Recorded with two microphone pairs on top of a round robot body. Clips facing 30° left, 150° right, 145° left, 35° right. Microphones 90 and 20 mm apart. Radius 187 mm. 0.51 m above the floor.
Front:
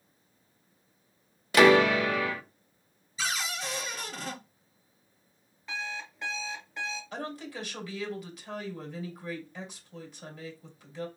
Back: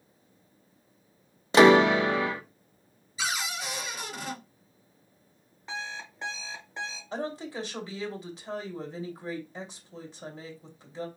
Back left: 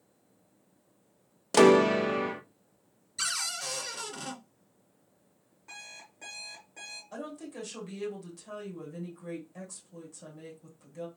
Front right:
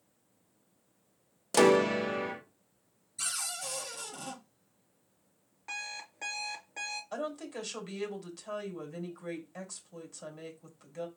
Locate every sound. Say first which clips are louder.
1.5 s a piano: back 2 dB, back left 4 dB; 175° right, 0.9 m
3.2 s a cupboard door: back 1 dB, back left 4 dB; 135° left, 2 m
5.7 s an alarm clock: even, front right 7 dB; 85° right, 1.5 m
7.1 s a woman speaking: back 4 dB, front right 3 dB; 95° right, 2.5 m